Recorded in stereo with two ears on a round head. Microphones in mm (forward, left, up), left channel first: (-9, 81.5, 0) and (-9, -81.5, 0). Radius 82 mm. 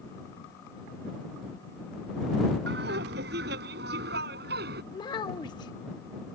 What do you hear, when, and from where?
2.7 s laughter: 60° right (ahead or behind); by 4.8 s 55° right (ahead or behind)
4.9 s a child speaking: 25° left (ahead or behind)